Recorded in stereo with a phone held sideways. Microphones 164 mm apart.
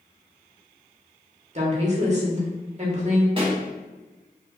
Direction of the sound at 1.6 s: 45° right (ahead or behind).